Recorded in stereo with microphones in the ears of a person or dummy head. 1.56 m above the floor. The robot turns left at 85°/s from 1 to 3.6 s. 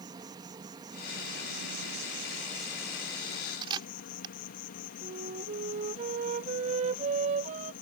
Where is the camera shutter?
30° right (ahead or behind).